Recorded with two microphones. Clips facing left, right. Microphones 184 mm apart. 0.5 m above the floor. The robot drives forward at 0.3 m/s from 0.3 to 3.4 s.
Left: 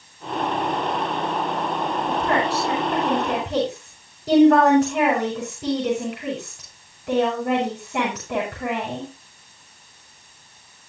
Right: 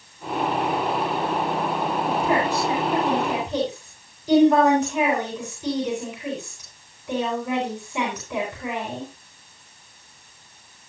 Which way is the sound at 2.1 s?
80° left.